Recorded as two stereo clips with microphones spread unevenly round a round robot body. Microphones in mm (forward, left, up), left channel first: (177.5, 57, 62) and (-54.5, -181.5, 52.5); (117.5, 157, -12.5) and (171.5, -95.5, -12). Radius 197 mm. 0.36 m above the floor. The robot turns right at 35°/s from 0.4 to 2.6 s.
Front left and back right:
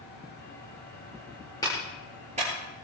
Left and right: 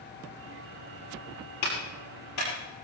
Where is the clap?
125° left, 6.5 m; by 2.5 s 155° left, 6.5 m.